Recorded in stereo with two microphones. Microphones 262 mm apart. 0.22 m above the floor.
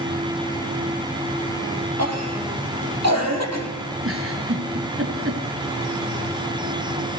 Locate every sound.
2.0 s a cough: 75° right (ahead or behind), 6.5 m
4.0 s a giggle: 55° right (ahead or behind), 3.5 m